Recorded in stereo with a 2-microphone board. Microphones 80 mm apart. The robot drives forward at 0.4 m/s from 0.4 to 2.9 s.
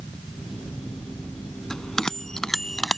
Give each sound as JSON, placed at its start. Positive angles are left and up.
{"t": 1.7, "sound": "a bell", "side_deg": 5}